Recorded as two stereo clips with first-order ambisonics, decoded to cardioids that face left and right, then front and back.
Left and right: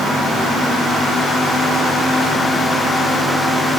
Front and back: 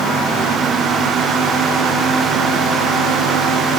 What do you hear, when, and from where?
Only background noise.